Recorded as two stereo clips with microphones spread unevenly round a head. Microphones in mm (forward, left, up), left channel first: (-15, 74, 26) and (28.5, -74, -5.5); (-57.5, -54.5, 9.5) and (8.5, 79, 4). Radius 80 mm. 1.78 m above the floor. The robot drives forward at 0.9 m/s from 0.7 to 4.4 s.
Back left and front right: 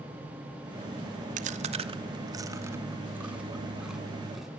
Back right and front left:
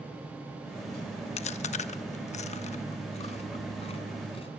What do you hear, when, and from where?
1.4 s chewing: 105° right, 1.2 m; by 4.5 s 165° right, 3 m